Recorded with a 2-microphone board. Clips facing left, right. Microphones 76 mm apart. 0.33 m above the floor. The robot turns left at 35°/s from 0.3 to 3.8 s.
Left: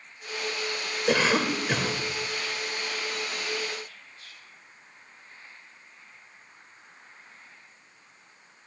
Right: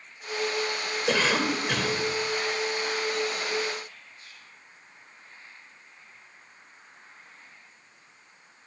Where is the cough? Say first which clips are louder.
Left 2 dB; 5° left (ahead or behind), 1.1 m; by 2.0 s 15° left (ahead or behind), 1.1 m.